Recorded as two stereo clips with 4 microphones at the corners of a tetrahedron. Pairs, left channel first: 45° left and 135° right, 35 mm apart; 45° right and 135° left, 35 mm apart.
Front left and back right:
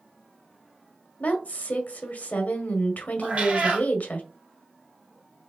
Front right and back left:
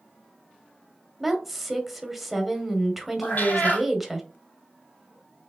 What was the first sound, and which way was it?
A woman speaking, 50° left.